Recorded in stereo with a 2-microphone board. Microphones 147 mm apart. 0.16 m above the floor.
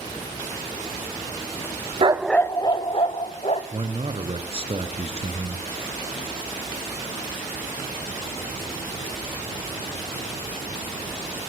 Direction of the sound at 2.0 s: 40° right (ahead or behind).